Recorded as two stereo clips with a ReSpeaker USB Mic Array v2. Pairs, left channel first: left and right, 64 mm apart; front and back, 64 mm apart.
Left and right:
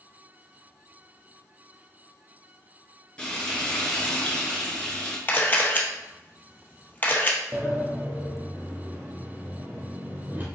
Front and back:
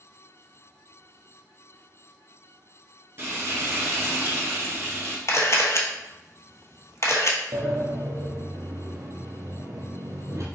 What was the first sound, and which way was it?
Frying, 160° left.